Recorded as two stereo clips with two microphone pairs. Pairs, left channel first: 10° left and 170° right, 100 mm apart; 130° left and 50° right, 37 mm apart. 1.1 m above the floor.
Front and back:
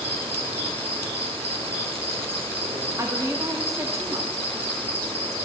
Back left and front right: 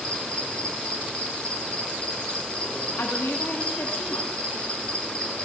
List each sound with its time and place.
0.0 s an insect: 170° right, 3 m
3.0 s a woman speaking: 135° left, 1.6 m